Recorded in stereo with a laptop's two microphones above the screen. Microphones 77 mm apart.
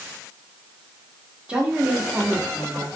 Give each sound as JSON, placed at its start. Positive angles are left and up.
{"t": 1.5, "sound": "a woman speaking", "side_deg": -15, "distance_m": 1.0}